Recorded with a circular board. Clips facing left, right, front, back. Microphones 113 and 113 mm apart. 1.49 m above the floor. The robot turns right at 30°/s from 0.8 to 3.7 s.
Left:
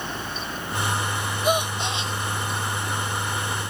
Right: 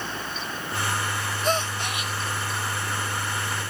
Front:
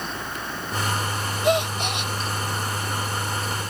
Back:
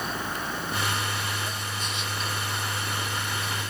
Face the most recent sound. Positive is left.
turn(degrees=75)